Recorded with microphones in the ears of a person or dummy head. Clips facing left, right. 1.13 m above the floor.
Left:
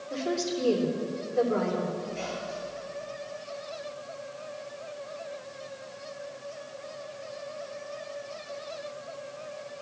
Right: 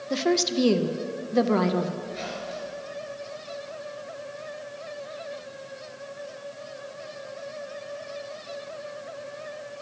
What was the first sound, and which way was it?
A woman speaking, 75° right (ahead or behind).